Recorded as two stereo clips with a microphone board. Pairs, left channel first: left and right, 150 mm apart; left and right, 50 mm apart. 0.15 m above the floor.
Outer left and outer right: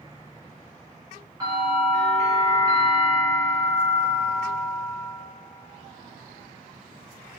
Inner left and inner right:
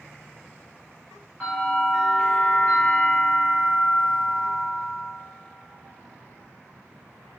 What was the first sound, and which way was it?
A bell, 25° right (ahead or behind).